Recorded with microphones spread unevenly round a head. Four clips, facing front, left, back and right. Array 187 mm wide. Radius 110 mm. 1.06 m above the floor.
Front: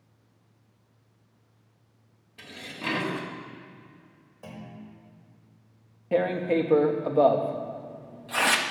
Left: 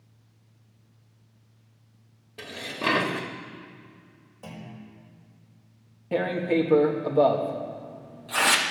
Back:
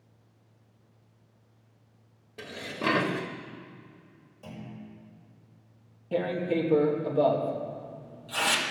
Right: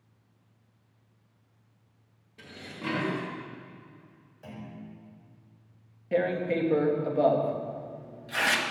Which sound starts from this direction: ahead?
Tearing paper, at 6.1 s.